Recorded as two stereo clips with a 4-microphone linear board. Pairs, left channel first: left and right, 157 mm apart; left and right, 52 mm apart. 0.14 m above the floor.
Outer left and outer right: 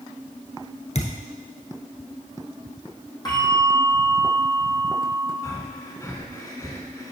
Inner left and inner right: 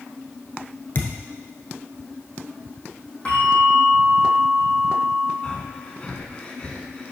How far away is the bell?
About 2.5 m.